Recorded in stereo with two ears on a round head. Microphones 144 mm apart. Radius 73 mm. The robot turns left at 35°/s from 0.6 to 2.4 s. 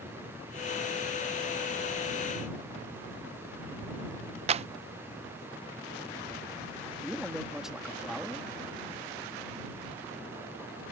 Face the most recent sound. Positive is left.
turn(degrees=-5)  # may be behind; listen again after turning